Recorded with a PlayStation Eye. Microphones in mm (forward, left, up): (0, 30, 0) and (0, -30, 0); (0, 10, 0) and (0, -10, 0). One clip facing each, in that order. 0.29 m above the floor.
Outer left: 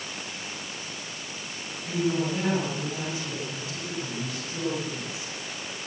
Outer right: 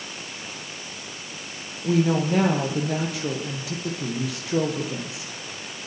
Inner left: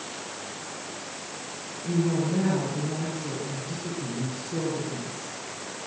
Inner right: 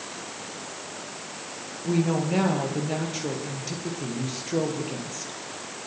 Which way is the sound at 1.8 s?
80° right.